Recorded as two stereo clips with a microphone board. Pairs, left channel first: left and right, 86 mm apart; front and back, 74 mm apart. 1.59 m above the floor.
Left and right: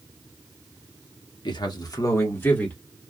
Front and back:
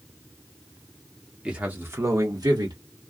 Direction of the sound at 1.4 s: 105° left.